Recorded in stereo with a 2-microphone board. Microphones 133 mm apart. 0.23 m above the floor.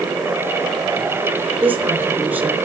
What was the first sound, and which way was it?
A woman speaking, 15° right (ahead or behind).